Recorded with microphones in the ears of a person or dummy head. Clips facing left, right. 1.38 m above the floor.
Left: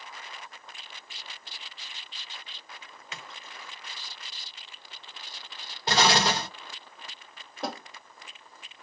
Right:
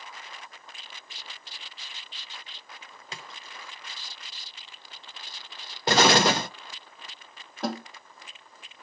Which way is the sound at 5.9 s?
50° right (ahead or behind).